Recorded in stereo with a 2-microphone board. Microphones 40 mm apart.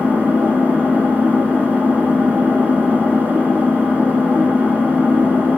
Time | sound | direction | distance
0.0 | an engine running | 40° right (ahead or behind) | 1.4 m